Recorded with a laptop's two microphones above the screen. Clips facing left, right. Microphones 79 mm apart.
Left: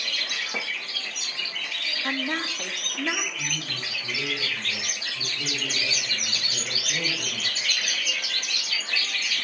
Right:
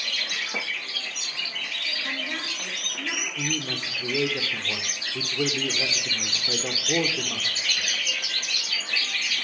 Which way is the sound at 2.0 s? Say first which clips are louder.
Left 6 dB; 40° left (ahead or behind).